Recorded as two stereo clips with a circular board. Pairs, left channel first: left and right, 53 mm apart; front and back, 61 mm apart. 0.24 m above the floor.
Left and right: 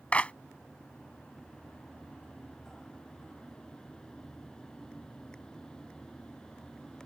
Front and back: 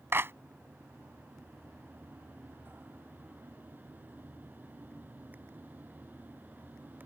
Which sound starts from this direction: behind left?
A clap, at 0.1 s.